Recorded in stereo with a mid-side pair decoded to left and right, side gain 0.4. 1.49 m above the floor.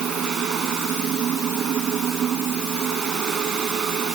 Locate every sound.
0.0 s a fan: 70° right